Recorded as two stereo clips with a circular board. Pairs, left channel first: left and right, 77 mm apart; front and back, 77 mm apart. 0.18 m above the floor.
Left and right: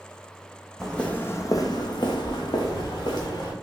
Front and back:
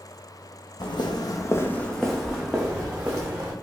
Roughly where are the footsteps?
Ahead.